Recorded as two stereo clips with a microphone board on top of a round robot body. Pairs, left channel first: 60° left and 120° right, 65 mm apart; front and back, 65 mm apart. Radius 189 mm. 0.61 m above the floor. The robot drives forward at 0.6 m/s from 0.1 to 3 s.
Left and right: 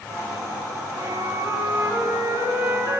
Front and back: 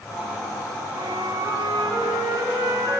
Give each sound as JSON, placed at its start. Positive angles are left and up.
{"t": 0.9, "sound": "a flute", "azimuth_deg": -160, "distance_m": 3.5}